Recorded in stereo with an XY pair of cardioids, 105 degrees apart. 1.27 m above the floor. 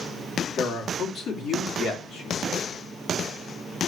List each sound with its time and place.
0.6 s a man speaking: 65° left, 3.5 m